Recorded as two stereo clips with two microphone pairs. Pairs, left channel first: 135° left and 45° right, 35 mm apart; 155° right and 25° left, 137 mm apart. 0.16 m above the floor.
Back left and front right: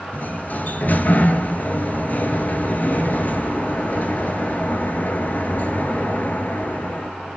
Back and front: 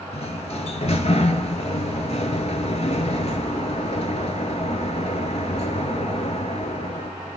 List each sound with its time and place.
0.1 s a sliding door: 170° left, 0.8 m